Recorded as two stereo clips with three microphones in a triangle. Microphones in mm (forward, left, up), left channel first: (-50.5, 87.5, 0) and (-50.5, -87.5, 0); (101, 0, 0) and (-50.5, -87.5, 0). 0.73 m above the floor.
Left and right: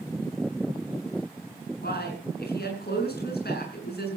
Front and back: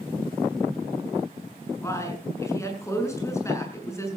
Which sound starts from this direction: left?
A man speaking, at 1.8 s.